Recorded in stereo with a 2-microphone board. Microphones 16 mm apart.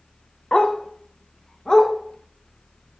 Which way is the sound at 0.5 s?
80° left.